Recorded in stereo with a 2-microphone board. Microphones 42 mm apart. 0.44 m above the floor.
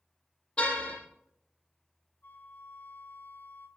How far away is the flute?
About 2 m.